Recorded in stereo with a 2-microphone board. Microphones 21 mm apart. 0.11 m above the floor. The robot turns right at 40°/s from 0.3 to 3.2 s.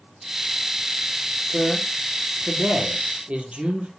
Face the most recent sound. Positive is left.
turn(degrees=-55)  # may be behind; listen again after turning